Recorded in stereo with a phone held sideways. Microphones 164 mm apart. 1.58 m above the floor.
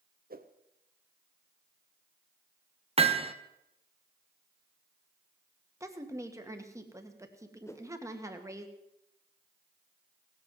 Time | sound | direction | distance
0.3 | a whoosh | 60° right (ahead or behind) | 1.0 m
3.0 | hammering | 35° right (ahead or behind) | 1.1 m
5.8 | a woman speaking | 15° right (ahead or behind) | 1.8 m
7.7 | a whoosh | 15° left (ahead or behind) | 0.9 m